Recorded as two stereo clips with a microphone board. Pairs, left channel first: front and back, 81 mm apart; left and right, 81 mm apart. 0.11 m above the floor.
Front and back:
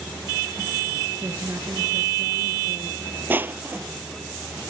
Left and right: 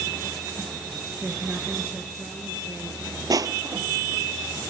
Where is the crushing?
120° right, 0.6 m.